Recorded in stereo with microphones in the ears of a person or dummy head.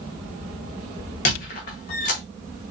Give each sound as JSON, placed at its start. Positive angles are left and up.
{"t": 1.2, "sound": "a squeak", "side_deg": 40, "distance_m": 1.1}